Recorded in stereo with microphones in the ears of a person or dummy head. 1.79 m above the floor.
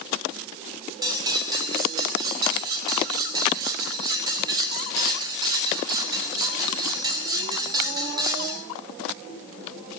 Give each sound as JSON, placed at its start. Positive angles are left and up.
{"t": 1.0, "sound": "cutlery clinking", "side_deg": -20, "distance_m": 5.0}